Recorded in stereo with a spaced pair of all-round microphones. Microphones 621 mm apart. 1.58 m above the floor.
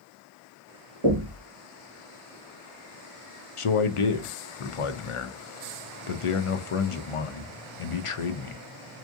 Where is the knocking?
50° right (ahead or behind), 1.3 m.